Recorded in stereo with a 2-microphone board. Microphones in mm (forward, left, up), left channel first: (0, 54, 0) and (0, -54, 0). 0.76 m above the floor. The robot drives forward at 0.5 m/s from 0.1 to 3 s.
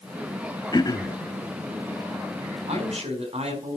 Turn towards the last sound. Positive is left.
turn(degrees=-70)  # may be behind; listen again after turning